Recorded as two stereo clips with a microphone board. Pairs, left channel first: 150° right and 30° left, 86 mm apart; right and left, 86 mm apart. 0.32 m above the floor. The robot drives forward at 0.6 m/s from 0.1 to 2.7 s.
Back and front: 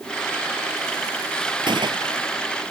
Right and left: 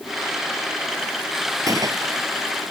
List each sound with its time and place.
1.7 s a gunshot: 45° left; by 2.3 s 50° left